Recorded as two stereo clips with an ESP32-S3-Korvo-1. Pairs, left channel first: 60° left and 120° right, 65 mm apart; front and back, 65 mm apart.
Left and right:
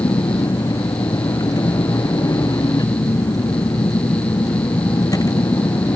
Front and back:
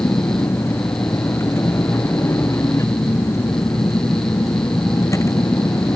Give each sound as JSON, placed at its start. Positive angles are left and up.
{"t": 0.0, "sound": "a vehicle", "azimuth_deg": 45}